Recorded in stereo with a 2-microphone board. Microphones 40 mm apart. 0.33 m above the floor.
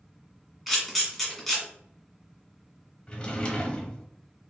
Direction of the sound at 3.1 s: 25° left (ahead or behind).